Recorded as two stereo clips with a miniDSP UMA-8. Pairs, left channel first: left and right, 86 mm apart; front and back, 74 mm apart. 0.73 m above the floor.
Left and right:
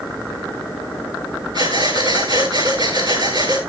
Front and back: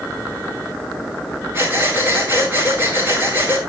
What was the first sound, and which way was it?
Breathing, 120° right.